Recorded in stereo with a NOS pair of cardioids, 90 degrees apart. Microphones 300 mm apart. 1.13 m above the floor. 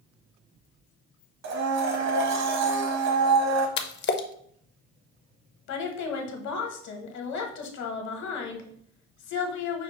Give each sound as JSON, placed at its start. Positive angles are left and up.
{"t": 1.4, "sound": "a blender", "azimuth_deg": -65, "distance_m": 1.0}
{"t": 3.8, "sound": "a splash", "azimuth_deg": 40, "distance_m": 0.5}
{"t": 5.7, "sound": "a woman speaking", "azimuth_deg": 70, "distance_m": 1.1}